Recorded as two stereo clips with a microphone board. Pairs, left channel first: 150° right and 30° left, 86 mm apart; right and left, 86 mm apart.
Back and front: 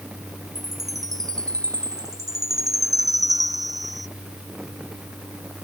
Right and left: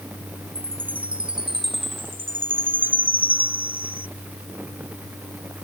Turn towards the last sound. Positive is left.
turn(degrees=75)